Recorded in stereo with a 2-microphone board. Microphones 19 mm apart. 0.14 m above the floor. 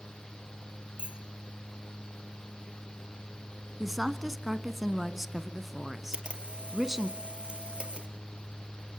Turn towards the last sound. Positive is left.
turn(degrees=-65)  # may be behind; listen again after turning